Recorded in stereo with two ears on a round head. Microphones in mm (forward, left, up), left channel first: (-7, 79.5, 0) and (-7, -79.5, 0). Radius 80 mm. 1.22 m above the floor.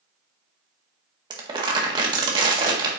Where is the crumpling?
25° right (ahead or behind), 1.7 m.